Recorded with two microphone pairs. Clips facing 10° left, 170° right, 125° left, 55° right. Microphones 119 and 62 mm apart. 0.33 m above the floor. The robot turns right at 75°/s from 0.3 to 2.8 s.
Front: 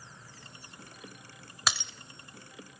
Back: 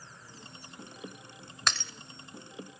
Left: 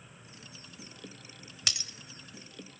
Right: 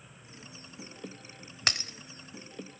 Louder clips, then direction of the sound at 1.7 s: Even, right 6 dB; 70° right.